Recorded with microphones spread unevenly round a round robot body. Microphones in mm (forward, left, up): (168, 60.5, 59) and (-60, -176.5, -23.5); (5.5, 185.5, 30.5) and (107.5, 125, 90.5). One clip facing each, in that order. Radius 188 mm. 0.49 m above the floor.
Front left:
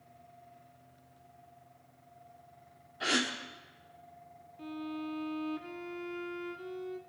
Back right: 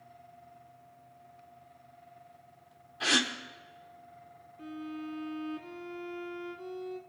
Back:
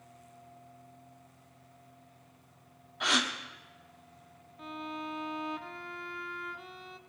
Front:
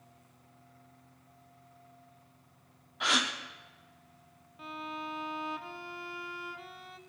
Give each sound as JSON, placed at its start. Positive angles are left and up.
{"t": 3.0, "sound": "a gasp", "azimuth_deg": -165, "distance_m": 1.1}
{"t": 4.6, "sound": "a violin", "azimuth_deg": 155, "distance_m": 0.6}